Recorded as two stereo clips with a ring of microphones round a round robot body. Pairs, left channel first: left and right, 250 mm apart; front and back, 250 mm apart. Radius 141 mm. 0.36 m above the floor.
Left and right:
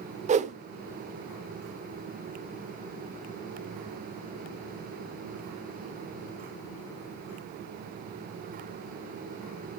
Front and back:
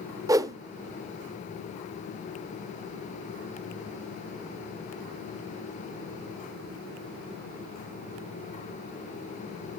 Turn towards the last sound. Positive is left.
turn(degrees=-115)